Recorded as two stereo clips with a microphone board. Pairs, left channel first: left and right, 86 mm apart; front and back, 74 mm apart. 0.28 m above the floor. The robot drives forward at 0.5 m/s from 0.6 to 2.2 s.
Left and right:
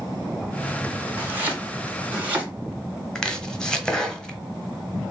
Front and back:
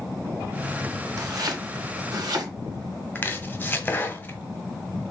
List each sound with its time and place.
1.2 s chopping: 155° right, 1.8 m; by 2.5 s 160° right, 2 m
3.1 s chopping: 20° left, 0.9 m